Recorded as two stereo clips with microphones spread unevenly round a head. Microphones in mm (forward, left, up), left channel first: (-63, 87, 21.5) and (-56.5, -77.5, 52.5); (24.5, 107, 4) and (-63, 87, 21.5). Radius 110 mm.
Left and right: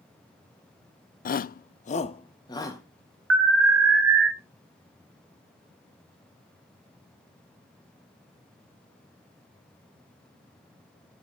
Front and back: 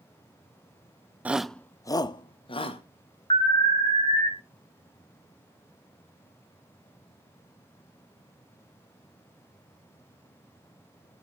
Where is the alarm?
55° right, 1.2 m.